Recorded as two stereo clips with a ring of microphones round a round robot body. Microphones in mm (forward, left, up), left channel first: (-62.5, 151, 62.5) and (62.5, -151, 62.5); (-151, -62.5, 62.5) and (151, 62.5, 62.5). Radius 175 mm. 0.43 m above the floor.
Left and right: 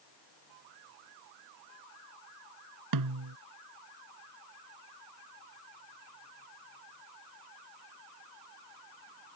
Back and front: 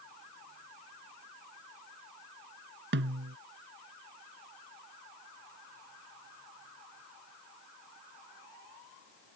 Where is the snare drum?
35° right.